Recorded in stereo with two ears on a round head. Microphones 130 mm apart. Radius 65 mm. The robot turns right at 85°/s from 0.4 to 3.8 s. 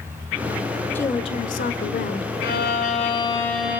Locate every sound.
0.9 s a woman speaking: 15° left, 1.7 m; by 2.3 s 130° left, 1.7 m
2.4 s a violin: 80° left, 4.5 m; by 3.8 s 165° right, 4.5 m